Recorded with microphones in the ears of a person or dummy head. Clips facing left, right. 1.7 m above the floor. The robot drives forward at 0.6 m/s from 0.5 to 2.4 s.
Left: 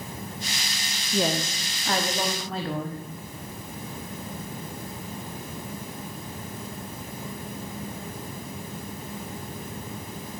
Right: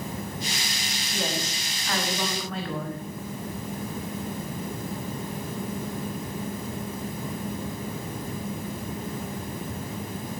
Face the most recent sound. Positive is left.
turn(degrees=30)  # may be behind; listen again after turning